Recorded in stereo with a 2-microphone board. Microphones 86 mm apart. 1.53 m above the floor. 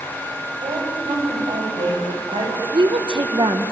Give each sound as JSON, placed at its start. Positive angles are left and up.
{"t": 0.6, "sound": "a woman speaking", "side_deg": -85, "distance_m": 9.0}
{"t": 2.7, "sound": "a woman speaking", "side_deg": -70, "distance_m": 1.8}